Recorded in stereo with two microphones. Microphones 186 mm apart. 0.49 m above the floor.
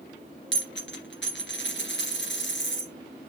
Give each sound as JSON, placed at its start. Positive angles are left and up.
{"t": 0.5, "sound": "a dropped coin", "side_deg": 80, "distance_m": 2.5}